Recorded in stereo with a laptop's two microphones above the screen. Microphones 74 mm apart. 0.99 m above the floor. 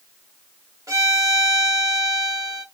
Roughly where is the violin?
Right.